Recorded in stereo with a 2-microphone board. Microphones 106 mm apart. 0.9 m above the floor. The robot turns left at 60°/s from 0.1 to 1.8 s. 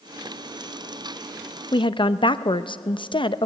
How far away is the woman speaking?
About 0.6 m.